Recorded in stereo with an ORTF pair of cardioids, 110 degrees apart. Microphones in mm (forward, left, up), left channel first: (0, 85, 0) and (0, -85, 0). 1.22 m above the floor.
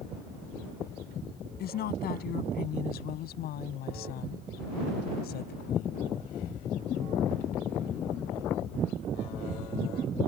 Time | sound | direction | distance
1.6 | a woman speaking | 65° left | ?